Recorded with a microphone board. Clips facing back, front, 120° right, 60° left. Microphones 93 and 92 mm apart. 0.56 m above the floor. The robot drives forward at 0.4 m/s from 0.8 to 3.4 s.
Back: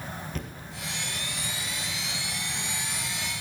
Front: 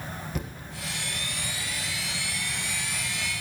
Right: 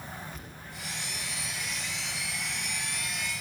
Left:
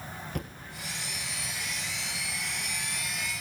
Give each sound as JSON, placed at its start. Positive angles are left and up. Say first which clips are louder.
{"t": 0.3, "sound": "a thud", "louder": "front 2 dB, left 8 dB", "azimuth_deg": 80, "distance_m": 1.7}